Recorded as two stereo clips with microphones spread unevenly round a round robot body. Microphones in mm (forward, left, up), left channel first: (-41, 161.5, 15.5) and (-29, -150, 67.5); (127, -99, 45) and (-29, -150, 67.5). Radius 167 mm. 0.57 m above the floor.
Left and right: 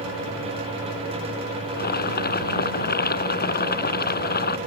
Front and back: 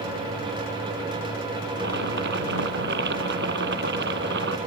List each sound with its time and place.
1.7 s boiling: 155° left